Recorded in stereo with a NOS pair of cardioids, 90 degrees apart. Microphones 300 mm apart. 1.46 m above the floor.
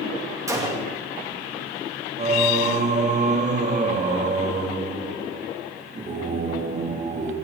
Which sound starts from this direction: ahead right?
Singing, at 2.2 s.